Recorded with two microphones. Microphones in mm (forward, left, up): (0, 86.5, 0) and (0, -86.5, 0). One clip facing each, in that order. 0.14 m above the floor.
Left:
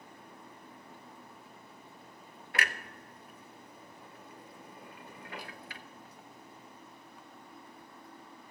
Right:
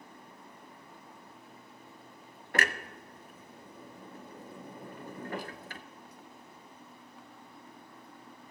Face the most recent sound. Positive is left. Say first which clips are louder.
# right 5 dB
turn(degrees=-45)  # may be behind; listen again after turning